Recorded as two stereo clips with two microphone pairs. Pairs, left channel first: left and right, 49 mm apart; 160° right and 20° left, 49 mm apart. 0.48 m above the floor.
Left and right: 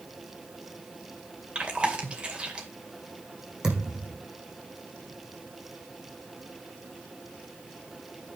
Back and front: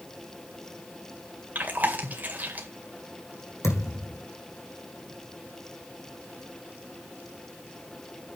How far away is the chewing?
About 2.5 m.